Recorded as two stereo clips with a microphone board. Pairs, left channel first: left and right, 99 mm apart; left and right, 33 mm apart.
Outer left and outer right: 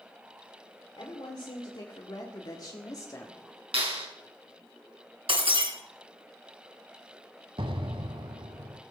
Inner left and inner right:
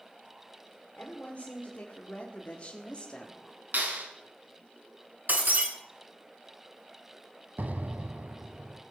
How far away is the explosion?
About 1.0 m.